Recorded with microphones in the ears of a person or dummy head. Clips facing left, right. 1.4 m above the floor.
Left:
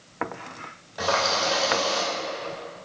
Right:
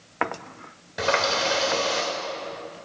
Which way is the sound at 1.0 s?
30° right (ahead or behind).